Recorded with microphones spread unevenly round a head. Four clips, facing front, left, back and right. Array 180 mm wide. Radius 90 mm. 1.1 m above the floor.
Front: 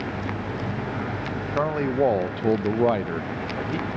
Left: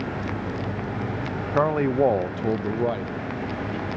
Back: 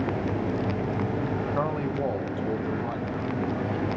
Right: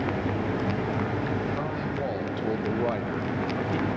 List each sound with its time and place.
1.5 s a man speaking: 65° left, 0.7 m; by 4.0 s 20° right, 1.1 m